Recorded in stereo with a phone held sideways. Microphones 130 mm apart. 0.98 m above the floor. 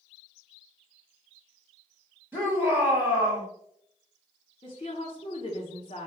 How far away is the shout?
About 0.9 m.